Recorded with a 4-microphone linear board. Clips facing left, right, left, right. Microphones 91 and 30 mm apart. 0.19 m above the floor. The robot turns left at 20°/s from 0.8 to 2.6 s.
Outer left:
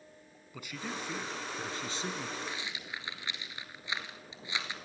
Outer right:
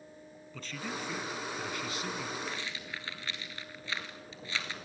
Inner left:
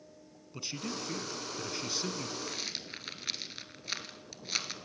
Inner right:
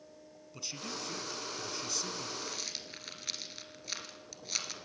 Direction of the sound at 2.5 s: 15° left (ahead or behind).